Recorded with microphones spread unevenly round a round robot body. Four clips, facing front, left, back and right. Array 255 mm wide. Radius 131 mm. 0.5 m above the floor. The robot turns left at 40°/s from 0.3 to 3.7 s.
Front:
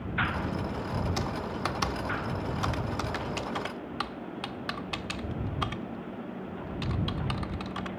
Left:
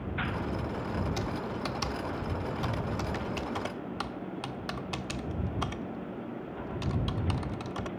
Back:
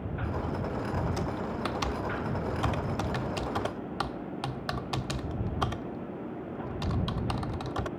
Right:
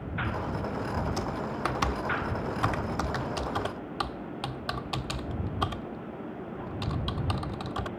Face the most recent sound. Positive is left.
turn(degrees=-150)